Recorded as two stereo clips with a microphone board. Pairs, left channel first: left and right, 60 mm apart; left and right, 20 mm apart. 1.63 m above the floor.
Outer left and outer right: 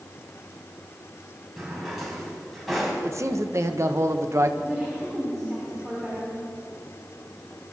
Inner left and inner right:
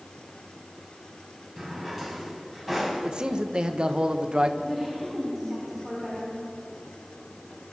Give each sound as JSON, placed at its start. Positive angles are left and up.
{"t": 1.6, "sound": "a drawer", "side_deg": 0, "distance_m": 5.0}
{"t": 3.0, "sound": "a man speaking", "side_deg": -55, "distance_m": 1.2}
{"t": 4.6, "sound": "a woman speaking", "side_deg": -5, "distance_m": 6.0}